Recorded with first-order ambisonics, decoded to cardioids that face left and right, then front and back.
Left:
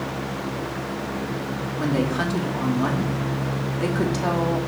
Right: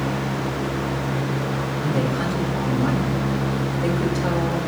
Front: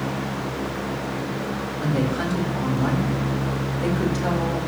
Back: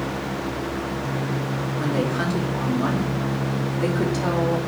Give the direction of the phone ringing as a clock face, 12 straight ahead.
No phone ringing in this recording.